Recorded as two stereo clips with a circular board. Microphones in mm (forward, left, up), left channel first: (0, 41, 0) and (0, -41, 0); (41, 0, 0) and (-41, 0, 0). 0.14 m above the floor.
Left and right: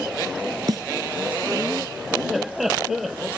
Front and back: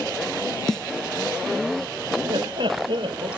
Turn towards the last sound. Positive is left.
turn(degrees=-175)